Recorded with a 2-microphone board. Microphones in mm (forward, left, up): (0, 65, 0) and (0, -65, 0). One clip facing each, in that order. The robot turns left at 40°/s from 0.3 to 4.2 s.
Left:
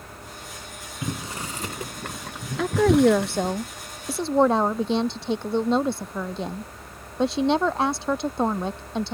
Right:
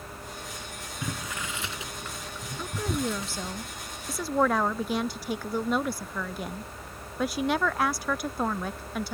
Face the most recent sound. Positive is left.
turn(degrees=25)